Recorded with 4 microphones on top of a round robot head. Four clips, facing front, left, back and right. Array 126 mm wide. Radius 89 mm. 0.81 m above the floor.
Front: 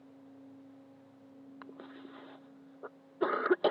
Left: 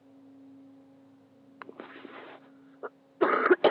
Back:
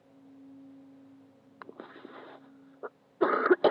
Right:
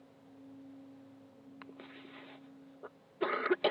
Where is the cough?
115° left.